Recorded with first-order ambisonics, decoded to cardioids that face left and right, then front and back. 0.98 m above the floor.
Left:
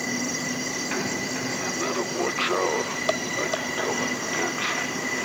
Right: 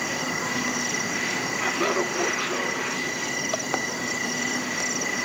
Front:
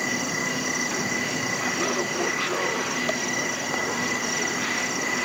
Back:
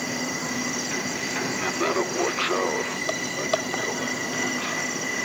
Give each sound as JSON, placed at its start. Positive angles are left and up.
{"t": 1.6, "sound": "laughter", "azimuth_deg": -115, "distance_m": 0.6}